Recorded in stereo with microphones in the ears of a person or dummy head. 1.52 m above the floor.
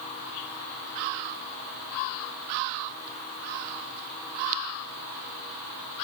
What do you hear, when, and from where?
Only background noise.